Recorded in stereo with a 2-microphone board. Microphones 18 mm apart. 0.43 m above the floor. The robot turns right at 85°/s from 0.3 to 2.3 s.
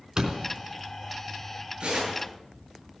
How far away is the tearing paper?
About 8.5 m.